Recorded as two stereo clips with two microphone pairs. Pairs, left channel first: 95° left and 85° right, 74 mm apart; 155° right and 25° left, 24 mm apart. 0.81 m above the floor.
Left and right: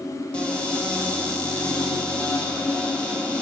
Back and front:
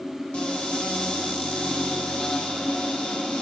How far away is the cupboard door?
About 2 m.